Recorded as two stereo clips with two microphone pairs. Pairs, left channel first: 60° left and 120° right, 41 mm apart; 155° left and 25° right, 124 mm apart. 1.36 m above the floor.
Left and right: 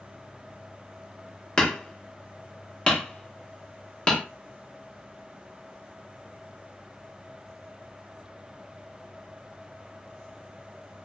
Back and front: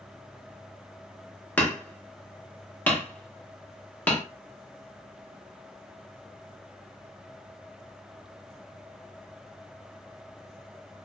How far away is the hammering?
About 0.8 m.